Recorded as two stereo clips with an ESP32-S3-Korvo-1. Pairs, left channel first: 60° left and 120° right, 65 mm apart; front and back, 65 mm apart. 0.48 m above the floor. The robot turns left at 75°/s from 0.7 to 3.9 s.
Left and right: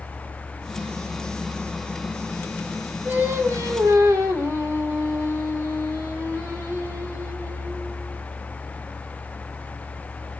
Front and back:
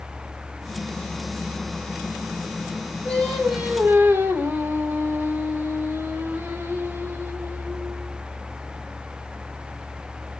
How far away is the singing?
About 2.5 m.